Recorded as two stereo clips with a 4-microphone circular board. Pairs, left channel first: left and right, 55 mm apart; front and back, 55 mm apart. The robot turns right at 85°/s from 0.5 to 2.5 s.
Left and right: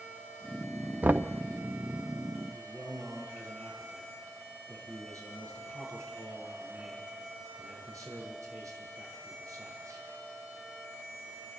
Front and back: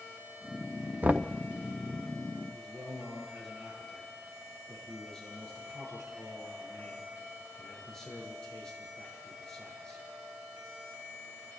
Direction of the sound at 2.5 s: 80° right.